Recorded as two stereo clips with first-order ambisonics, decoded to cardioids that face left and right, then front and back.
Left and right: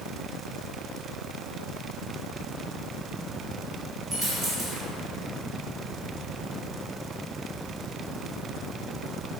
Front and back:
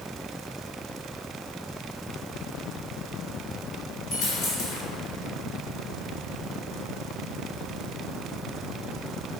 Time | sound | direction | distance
4.1 | a dropped coin | 20° right | 1.7 m